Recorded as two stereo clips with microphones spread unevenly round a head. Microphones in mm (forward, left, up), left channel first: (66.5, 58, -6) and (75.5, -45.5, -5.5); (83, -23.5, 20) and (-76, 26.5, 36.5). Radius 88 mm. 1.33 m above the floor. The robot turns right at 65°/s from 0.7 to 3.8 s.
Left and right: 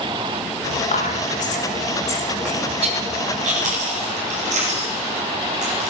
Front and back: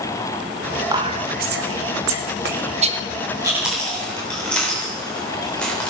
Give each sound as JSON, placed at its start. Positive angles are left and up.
{"t": 0.9, "sound": "whispering", "azimuth_deg": 90, "distance_m": 1.4}
{"t": 3.4, "sound": "chewing", "azimuth_deg": -125, "distance_m": 3.5}